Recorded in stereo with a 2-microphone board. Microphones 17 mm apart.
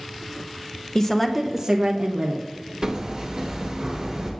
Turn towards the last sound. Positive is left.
turn(degrees=-30)  # may be behind; listen again after turning